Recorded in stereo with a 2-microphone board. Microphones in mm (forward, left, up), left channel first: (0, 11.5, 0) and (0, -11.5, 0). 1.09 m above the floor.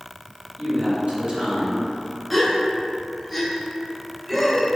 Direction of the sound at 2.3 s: Centre (ahead or behind).